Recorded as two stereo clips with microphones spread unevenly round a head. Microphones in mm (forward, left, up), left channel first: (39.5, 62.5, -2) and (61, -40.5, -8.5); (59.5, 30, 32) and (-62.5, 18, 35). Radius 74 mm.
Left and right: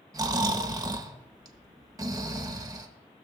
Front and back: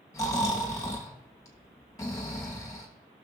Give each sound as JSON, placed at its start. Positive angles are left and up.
{"t": 0.1, "sound": "snoring", "azimuth_deg": -50, "distance_m": 1.1}